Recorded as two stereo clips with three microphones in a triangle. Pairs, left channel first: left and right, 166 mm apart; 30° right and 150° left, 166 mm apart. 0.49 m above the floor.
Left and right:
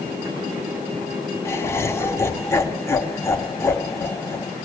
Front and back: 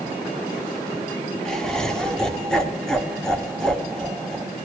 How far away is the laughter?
About 1.0 m.